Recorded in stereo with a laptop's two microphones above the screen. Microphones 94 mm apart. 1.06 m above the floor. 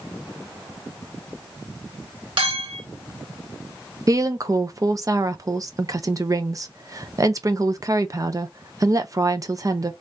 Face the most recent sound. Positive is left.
turn(degrees=-35)  # may be behind; listen again after turning